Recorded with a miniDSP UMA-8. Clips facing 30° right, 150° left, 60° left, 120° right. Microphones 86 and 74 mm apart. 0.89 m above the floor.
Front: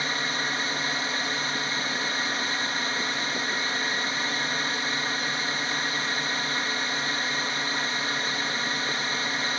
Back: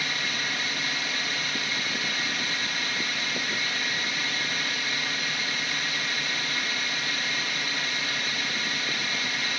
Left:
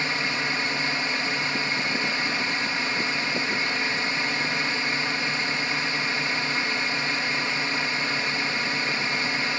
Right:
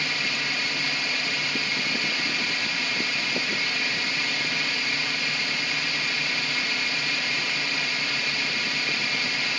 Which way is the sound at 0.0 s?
15° left.